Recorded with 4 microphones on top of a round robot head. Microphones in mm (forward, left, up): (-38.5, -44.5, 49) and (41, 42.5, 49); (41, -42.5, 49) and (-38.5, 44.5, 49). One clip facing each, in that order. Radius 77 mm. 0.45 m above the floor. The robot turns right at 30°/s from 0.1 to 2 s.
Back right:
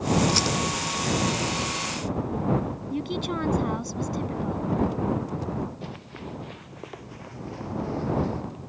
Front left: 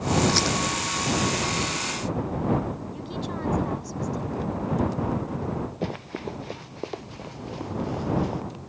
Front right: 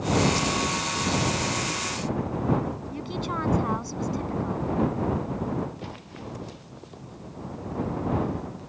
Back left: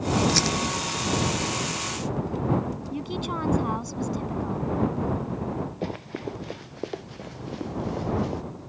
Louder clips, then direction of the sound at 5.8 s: Front left 7 dB, back left 7 dB; 90° left.